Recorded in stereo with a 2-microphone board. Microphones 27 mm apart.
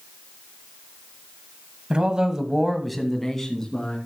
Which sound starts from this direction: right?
A man speaking, at 1.9 s.